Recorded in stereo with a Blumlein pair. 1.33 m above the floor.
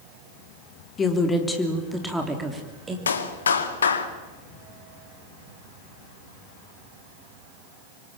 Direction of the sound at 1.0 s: 20° left.